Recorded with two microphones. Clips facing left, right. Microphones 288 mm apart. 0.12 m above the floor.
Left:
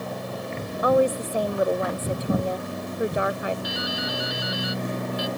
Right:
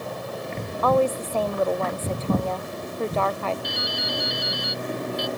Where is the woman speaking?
15° left (ahead or behind).